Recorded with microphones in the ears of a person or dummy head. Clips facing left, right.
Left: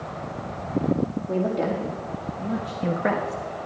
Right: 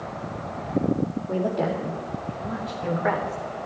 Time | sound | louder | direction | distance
1.3 | a woman speaking | left 1 dB | 20° left (ahead or behind) | 2.5 m